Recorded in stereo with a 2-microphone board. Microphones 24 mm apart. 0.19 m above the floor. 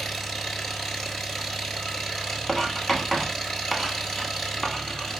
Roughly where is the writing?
Centre.